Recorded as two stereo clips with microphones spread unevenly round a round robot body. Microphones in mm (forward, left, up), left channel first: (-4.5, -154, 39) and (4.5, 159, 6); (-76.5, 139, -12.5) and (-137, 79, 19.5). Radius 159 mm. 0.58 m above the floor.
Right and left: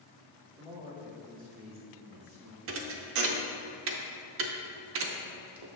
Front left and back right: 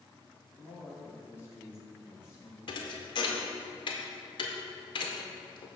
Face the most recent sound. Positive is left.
turn(degrees=40)